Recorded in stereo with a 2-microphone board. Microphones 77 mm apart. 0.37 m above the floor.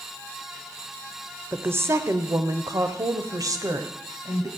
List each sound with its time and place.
1.5 s a woman speaking: 30° right (ahead or behind), 0.9 m; by 4.5 s 50° right (ahead or behind), 2 m